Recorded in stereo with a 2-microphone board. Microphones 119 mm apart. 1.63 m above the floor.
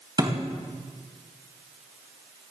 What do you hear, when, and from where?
0.2 s a thud: 35° right (ahead or behind), 3.5 m